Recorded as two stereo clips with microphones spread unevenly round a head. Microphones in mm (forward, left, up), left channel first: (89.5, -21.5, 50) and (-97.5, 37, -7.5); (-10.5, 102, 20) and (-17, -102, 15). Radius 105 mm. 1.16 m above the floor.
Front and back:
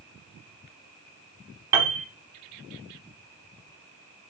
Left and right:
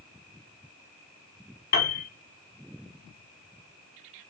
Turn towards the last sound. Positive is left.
turn(degrees=70)